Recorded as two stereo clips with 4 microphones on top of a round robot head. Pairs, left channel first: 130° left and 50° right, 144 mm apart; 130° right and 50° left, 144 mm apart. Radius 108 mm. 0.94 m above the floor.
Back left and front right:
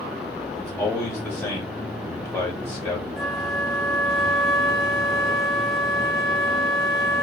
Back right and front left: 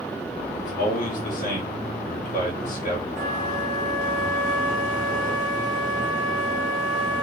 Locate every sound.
0.5 s a man speaking: 145° right, 2.5 m
3.2 s a flute: 35° left, 1.2 m